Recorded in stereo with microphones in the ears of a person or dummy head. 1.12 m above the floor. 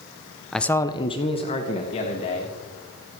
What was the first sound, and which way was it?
A man speaking, centre (ahead or behind).